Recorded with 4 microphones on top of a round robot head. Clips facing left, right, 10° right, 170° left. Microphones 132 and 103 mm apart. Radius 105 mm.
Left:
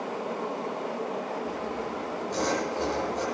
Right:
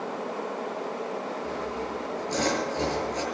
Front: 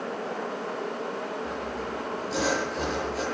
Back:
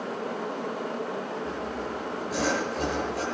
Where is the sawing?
75° right, 8 m.